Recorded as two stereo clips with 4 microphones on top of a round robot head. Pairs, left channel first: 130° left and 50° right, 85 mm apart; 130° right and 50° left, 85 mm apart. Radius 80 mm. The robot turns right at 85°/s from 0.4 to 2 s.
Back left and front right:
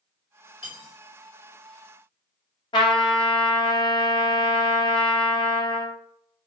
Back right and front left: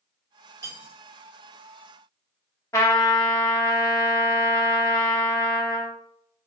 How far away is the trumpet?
About 0.6 m.